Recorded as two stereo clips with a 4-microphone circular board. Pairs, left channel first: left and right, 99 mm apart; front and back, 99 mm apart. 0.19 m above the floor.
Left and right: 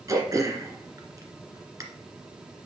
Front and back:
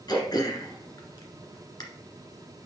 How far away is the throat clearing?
About 1.8 m.